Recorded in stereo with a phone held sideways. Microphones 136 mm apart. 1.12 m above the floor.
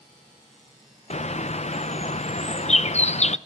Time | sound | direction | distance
1.1 | a bird | 55° left (ahead or behind) | 0.5 m